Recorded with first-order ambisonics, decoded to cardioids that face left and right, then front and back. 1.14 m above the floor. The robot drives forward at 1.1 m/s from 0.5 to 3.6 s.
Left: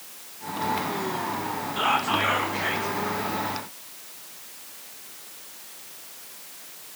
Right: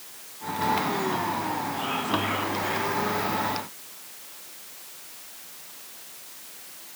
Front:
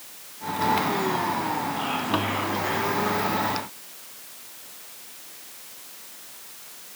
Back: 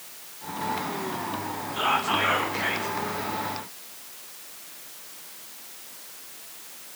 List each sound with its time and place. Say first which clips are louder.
1.8 s whispering: left 8 dB, back 3 dB; 120° left, 1.1 m; by 3.0 s 155° left, 2 m